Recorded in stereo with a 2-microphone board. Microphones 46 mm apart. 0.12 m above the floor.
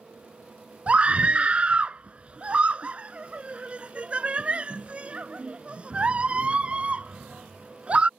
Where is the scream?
30° right (ahead or behind).